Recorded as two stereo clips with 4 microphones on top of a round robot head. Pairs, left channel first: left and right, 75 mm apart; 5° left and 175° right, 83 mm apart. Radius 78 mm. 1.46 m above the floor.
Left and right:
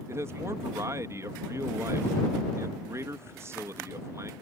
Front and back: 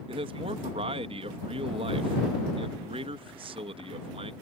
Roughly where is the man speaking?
Behind right.